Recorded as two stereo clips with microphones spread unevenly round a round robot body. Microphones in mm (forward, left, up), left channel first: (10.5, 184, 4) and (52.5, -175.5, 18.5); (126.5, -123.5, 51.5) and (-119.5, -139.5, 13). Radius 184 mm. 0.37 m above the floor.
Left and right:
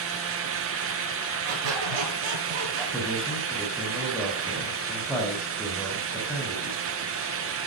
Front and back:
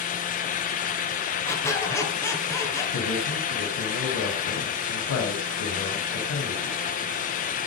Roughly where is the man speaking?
Ahead.